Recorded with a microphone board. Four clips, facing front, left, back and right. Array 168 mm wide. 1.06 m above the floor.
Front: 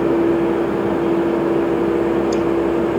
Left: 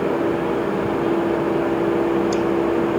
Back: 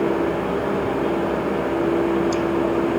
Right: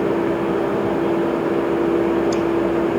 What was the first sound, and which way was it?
Only background noise.